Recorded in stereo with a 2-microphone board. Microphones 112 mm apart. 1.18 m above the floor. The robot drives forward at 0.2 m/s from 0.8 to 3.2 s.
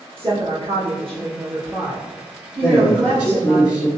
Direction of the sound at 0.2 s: 55° right (ahead or behind).